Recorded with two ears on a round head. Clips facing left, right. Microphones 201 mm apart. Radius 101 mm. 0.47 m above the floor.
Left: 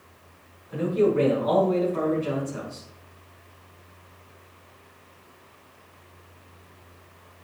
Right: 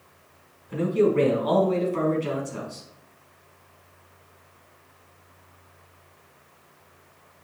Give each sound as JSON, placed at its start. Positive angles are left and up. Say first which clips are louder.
{"t": 0.7, "sound": "a man speaking", "louder": "right 1 dB", "side_deg": -45, "distance_m": 5.0}